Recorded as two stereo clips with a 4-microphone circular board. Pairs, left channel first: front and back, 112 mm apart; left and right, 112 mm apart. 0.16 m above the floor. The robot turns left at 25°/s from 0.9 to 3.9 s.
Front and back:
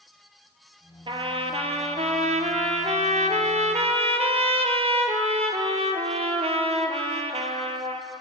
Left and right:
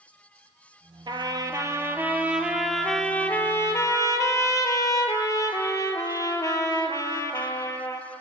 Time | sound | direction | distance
1.1 | a trumpet | 140° right | 0.6 m